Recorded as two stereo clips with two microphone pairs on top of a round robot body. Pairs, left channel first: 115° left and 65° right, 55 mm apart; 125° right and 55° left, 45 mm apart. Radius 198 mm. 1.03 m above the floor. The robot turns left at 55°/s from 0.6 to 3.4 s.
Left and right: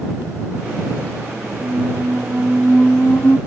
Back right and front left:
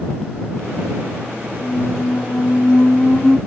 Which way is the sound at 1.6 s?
95° right.